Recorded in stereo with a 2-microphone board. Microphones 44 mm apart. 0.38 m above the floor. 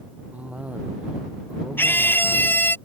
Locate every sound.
0.3 s a cough: 30° right (ahead or behind)
1.8 s a scream: 50° left (ahead or behind)